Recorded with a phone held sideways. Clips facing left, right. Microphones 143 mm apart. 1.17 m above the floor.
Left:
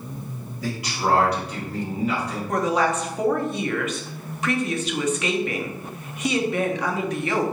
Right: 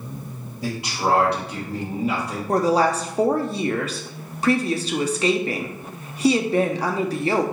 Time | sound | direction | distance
0.6 | a man speaking | 30° right (ahead or behind) | 1.7 m
2.5 | a woman speaking | 35° right (ahead or behind) | 0.5 m